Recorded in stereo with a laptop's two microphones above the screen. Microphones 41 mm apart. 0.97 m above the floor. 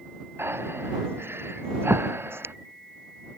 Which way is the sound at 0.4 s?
80° right.